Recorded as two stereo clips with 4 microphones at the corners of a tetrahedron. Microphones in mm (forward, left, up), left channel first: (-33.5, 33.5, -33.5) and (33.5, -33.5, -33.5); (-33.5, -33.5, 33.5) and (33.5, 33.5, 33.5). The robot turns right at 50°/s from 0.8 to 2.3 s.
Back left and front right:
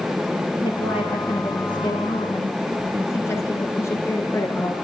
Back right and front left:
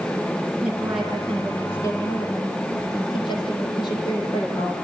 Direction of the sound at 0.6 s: 120° left.